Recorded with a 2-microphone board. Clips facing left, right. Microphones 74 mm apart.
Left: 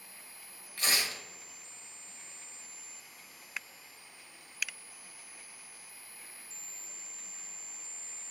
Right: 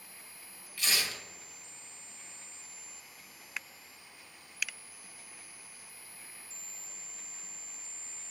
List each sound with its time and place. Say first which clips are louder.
0.8 s tearing paper: left 1 dB; 45° left (ahead or behind), 1.3 m